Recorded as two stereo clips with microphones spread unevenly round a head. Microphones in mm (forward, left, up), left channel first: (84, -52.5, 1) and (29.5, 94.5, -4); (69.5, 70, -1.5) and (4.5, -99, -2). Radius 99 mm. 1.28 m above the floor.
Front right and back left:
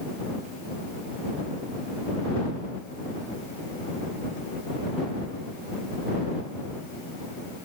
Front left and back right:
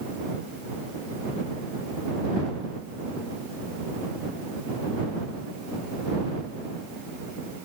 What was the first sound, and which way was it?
Only background noise.